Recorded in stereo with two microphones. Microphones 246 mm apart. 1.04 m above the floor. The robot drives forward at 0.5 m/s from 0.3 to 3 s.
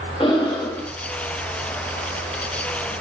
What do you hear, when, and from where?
0.2 s breathing: 20° left (ahead or behind), 1.0 m; by 0.9 s 15° left (ahead or behind), 1.3 m